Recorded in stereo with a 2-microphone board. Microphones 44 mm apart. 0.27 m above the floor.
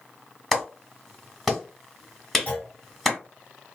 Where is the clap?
5° left (ahead or behind), 1.2 m.